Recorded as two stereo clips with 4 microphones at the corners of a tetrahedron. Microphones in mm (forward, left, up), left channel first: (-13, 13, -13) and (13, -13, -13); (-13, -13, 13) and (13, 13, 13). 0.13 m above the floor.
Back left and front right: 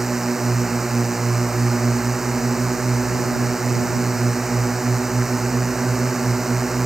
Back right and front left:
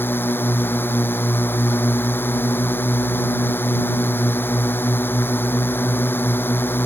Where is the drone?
130° right.